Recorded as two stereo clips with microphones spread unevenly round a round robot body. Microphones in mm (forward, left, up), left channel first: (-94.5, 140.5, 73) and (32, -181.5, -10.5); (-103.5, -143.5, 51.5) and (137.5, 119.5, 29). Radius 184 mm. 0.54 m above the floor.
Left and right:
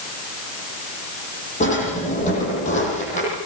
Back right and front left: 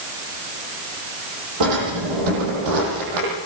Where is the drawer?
40° left, 9 m.